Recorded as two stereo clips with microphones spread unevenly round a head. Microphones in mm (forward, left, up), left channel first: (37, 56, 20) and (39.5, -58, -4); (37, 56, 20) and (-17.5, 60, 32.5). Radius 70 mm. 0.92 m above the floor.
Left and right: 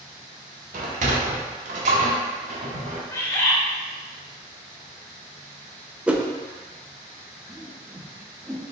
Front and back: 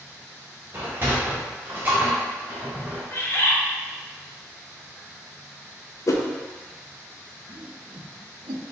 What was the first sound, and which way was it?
A sliding door, 115° right.